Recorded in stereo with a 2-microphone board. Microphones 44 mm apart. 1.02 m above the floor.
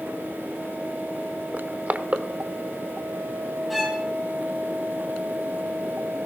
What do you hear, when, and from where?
1.5 s crushing: 35° right (ahead or behind), 0.9 m
3.7 s a violin: centre (ahead or behind), 3 m